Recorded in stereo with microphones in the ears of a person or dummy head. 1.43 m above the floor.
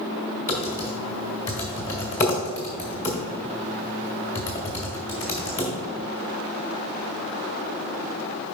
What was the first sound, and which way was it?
Typing on a keyboard, 15° left (ahead or behind).